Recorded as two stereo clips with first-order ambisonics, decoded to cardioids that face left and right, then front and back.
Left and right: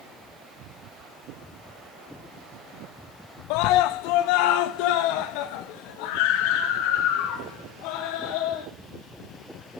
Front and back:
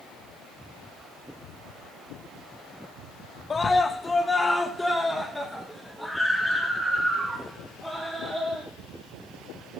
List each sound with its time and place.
3.5 s a scream: 75° left, 1.1 m; by 8.7 s 90° left, 4 m